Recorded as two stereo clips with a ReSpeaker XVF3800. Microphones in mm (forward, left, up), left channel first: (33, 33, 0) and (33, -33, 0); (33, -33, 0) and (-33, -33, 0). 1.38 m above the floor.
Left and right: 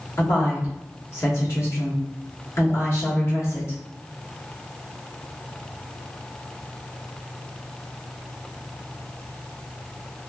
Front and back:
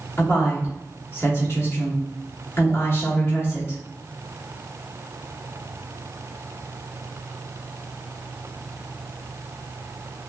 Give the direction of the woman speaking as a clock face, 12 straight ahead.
11 o'clock.